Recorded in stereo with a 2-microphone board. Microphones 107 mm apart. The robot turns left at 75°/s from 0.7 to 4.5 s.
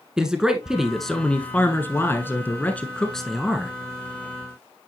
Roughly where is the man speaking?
Centre.